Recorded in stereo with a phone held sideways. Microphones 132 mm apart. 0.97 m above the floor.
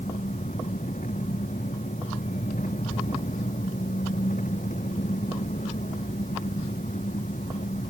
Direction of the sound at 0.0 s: 75° left (ahead or behind).